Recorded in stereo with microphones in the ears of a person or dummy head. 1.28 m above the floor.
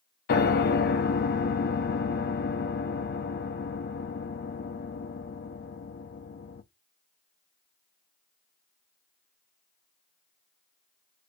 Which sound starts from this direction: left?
A piano, at 0.3 s.